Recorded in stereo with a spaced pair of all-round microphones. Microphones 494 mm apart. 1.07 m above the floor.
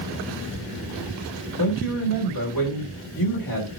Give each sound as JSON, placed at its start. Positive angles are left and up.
{"t": 1.6, "sound": "a man speaking", "side_deg": 45, "distance_m": 3.5}